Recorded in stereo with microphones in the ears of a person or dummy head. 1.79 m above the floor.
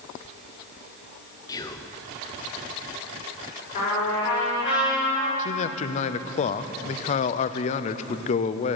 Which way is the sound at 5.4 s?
35° left (ahead or behind).